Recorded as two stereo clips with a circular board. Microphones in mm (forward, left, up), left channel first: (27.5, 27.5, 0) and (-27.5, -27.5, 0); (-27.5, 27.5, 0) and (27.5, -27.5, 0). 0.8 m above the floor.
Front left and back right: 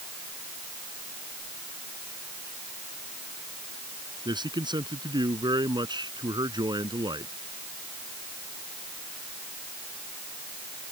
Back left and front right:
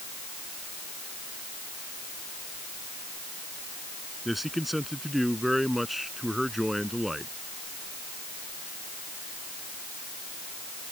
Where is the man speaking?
135° right.